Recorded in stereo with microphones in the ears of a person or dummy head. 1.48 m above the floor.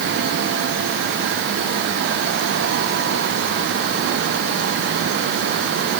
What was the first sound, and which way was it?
Only background noise.